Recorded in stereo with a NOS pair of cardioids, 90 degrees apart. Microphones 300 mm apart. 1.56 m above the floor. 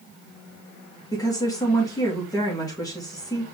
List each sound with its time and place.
1.1 s a woman speaking: 10° left, 1.8 m